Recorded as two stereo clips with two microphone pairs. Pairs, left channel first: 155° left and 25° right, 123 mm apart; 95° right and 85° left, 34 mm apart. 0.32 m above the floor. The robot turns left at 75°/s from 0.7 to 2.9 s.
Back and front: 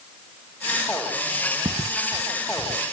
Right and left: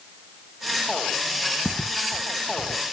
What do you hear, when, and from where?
1.6 s footsteps: 10° right, 0.9 m; by 2.8 s 40° right, 1.4 m